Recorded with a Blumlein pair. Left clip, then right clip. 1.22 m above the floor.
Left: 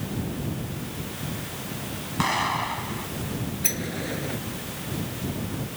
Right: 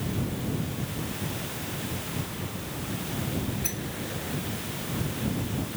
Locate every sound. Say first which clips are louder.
2.2 s an explosion: left 13 dB; 40° left
3.6 s a sliding door: left 5 dB; 70° left